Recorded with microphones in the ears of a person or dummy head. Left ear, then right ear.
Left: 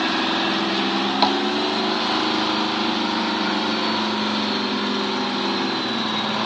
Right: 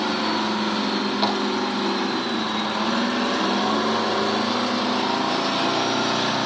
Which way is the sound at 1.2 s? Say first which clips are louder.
Left 5 dB; 30° left (ahead or behind).